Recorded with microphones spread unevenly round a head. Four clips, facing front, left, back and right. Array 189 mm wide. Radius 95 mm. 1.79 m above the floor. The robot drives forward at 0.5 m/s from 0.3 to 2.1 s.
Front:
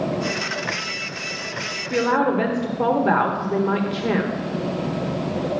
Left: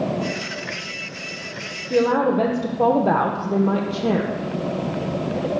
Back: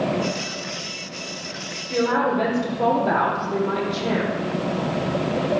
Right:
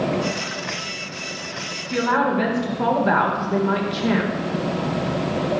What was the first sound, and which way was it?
A woman speaking, 75° left.